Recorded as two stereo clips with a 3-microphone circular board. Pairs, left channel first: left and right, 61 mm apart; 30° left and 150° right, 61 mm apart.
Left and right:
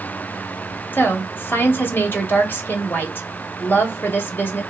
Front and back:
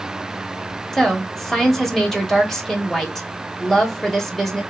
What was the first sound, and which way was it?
A woman speaking, 110° left.